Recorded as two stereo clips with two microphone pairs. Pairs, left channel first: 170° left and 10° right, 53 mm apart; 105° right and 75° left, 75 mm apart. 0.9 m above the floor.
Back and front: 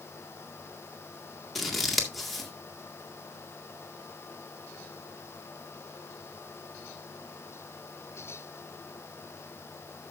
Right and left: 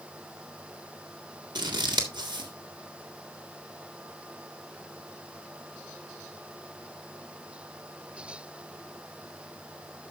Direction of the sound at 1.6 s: 80° left.